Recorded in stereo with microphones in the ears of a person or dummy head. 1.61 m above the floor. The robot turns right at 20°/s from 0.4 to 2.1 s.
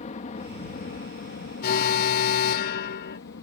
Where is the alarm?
55° left (ahead or behind); by 3.2 s 65° left (ahead or behind).